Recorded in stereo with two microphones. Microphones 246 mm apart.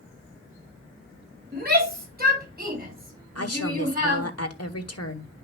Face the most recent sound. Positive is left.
turn(degrees=65)  # may be behind; listen again after turning